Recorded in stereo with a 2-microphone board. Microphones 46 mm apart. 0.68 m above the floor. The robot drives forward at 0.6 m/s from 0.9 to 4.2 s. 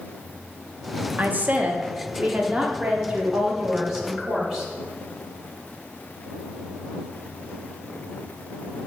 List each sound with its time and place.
1.2 s a woman speaking: 45° right (ahead or behind), 0.8 m; by 4.7 s 15° right (ahead or behind), 2 m